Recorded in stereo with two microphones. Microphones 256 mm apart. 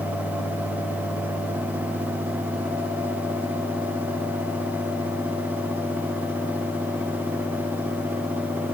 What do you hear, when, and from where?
Only background noise.